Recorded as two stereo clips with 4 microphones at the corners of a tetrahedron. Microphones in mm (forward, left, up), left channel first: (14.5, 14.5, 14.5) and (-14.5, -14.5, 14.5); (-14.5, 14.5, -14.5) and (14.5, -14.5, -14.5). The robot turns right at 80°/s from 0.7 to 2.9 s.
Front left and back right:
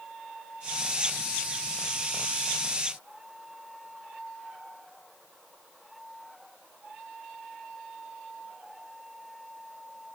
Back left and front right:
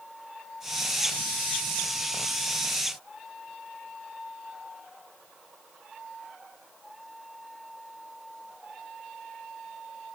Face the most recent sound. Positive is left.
No sound to turn to.